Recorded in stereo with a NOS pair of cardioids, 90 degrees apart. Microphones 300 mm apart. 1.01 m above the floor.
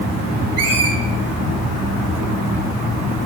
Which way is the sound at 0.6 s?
55° right.